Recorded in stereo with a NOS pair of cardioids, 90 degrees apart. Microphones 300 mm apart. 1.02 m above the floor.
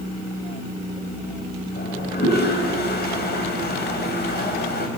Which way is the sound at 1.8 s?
35° left.